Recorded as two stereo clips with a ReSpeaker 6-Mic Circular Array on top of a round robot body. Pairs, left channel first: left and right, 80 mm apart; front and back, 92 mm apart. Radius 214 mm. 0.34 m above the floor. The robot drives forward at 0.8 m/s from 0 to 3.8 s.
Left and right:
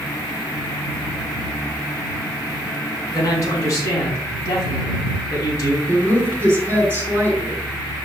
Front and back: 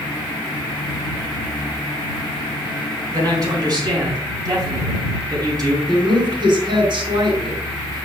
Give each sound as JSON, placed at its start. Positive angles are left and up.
{"t": 3.1, "sound": "a man speaking", "azimuth_deg": 135, "distance_m": 4.5}
{"t": 5.9, "sound": "a woman speaking", "azimuth_deg": -155, "distance_m": 4.5}